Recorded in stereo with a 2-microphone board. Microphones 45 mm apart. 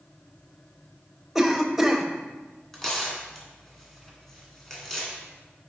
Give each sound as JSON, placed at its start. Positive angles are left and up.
{"t": 1.4, "sound": "a cough", "side_deg": -5, "distance_m": 0.9}
{"t": 2.7, "sound": "tearing paper", "side_deg": 5, "distance_m": 1.6}